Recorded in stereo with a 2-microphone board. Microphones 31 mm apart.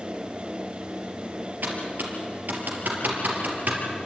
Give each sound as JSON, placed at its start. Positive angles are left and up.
{"t": 1.6, "sound": "typing on a keyboard", "side_deg": -65, "distance_m": 3.5}